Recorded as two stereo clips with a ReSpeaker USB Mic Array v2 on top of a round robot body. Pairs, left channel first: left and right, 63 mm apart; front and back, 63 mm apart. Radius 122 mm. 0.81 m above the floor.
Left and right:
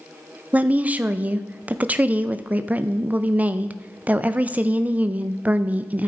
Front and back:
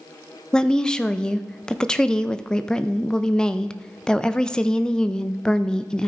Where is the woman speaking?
65° right, 0.6 m.